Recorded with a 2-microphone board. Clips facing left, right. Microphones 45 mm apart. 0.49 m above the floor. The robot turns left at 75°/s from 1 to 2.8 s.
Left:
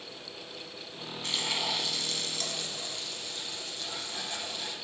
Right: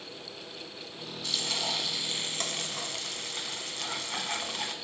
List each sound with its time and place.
1.2 s frying: 40° left, 0.8 m; by 4.7 s 75° right, 0.8 m